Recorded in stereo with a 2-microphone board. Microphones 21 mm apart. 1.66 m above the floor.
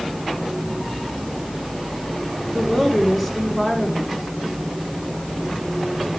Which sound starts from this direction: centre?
A woman speaking, at 2.5 s.